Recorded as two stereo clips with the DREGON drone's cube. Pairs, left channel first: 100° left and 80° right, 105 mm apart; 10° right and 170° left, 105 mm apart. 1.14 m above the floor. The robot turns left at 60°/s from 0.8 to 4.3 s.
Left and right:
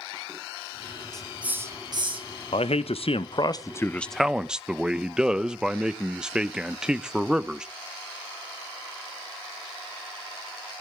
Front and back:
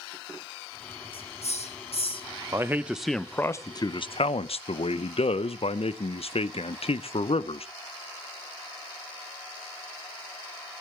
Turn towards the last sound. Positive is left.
turn(degrees=5)